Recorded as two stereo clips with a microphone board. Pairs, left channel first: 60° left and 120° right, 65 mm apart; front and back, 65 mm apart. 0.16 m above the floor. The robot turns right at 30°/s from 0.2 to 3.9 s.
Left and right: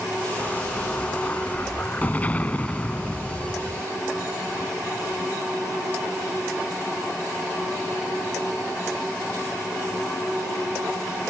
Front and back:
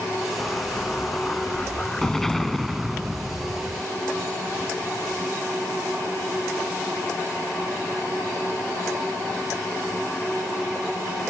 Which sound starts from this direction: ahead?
An explosion, at 0.4 s.